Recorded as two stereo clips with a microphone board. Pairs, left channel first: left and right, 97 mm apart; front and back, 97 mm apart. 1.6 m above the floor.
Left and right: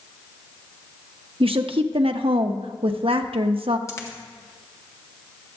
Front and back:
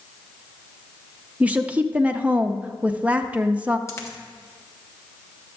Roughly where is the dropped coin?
Ahead left.